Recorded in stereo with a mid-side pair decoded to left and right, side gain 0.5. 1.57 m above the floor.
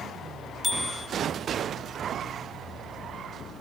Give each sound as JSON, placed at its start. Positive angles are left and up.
{"t": 0.6, "sound": "a bicycle bell", "azimuth_deg": 10, "distance_m": 2.5}